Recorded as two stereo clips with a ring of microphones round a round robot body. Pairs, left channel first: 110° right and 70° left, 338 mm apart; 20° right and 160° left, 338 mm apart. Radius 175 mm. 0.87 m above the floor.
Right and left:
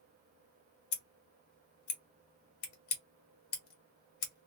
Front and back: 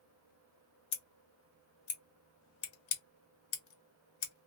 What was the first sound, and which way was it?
Scissors, 75° right.